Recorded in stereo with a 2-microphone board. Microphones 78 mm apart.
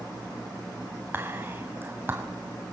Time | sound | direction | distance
1.1 | whispering | 30° right (ahead or behind) | 1.4 m